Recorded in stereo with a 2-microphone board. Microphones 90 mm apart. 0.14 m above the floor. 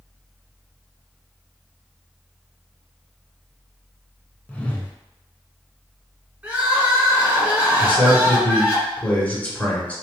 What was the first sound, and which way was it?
A whoosh, 15° left (ahead or behind).